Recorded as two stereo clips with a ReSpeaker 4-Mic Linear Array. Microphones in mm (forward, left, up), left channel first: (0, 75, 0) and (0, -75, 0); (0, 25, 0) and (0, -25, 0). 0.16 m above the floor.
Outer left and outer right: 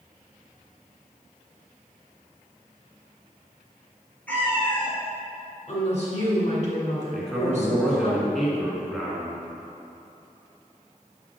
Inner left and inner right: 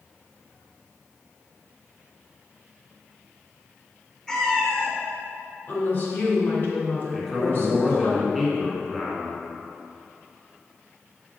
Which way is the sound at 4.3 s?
10° left (ahead or behind).